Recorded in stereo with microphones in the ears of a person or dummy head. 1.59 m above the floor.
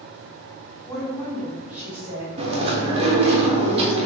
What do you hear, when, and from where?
0.9 s a woman speaking: 10° left (ahead or behind), 1.8 m; by 2.3 s 10° right (ahead or behind), 2.5 m
2.4 s chewing: 30° right (ahead or behind), 0.8 m